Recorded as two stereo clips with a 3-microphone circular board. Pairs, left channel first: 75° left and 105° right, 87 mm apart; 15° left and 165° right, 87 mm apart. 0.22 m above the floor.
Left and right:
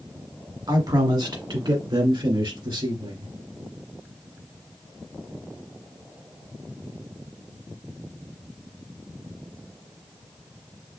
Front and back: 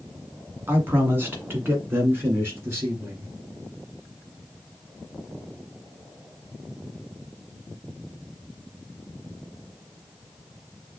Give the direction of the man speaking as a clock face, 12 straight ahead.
4 o'clock.